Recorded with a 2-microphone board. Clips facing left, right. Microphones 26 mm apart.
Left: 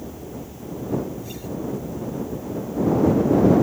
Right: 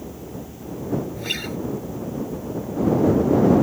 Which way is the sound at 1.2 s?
70° right (ahead or behind).